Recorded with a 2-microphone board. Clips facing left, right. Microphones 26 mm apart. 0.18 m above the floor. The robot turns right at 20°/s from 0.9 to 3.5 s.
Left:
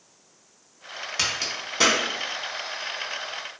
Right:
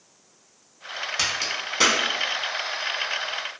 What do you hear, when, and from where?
1.2 s a crack: centre (ahead or behind), 0.6 m; by 2.0 s 10° right (ahead or behind), 0.6 m